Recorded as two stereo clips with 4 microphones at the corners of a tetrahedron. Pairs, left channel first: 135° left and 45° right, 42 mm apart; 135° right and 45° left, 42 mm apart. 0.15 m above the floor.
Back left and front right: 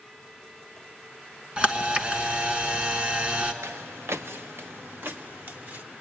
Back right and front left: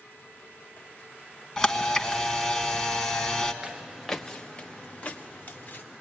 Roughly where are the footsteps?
Ahead right.